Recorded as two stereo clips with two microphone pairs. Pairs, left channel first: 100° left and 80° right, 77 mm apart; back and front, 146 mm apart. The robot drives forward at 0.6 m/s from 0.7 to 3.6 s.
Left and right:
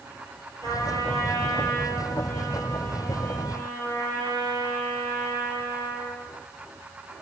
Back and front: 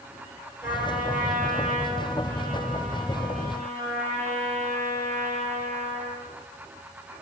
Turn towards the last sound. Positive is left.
turn(degrees=-95)